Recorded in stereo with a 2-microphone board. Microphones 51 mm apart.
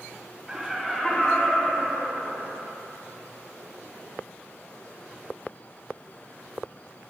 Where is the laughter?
15° right (ahead or behind), 1.5 m; by 2.6 s 55° left (ahead or behind), 3 m.